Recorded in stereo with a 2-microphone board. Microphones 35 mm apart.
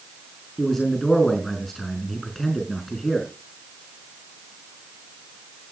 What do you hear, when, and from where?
0.6 s a man speaking: 10° left (ahead or behind), 4 m